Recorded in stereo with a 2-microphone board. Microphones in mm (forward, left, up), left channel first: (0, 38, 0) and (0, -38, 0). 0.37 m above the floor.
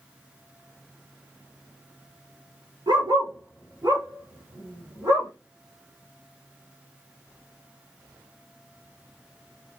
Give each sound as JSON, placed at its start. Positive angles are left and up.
{"t": 2.9, "sound": "a dog barking", "side_deg": -85, "distance_m": 1.9}